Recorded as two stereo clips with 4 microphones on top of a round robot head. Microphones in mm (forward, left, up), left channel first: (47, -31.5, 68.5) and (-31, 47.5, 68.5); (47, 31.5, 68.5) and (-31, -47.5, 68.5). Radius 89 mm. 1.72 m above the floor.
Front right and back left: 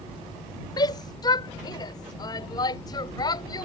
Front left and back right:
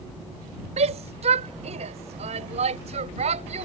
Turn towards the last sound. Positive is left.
turn(degrees=-105)